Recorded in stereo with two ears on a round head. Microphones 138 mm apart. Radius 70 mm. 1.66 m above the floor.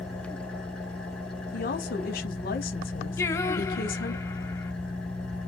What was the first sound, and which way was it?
An engine running, 5° left (ahead or behind).